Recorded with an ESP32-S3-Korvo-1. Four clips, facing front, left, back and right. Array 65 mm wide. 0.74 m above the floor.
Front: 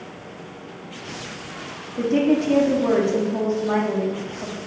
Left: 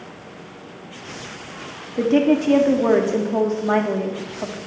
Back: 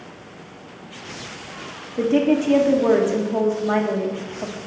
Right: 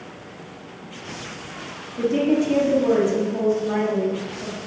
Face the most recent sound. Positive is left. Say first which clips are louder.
# left 3 dB, back 1 dB
turn(degrees=110)